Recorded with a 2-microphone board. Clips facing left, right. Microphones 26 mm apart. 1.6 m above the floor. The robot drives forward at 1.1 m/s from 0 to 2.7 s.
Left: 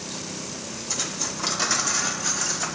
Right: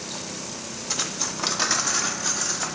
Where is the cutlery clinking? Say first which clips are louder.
Right 1 dB; 30° right (ahead or behind), 0.9 m; by 2.6 s 10° right (ahead or behind), 2 m.